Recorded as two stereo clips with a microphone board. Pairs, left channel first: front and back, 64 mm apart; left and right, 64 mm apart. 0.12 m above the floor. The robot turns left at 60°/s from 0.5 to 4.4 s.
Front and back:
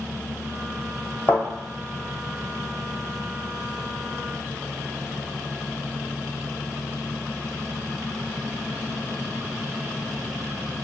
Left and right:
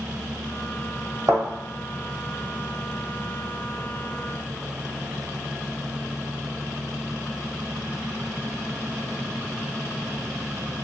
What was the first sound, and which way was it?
A thud, 55° right.